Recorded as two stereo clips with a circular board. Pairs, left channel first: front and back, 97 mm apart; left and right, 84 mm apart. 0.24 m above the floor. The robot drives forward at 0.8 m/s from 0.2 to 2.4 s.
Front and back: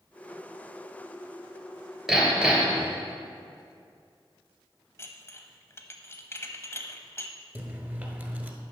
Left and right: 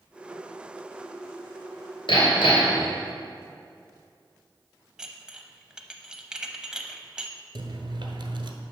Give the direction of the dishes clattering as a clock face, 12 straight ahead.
1 o'clock.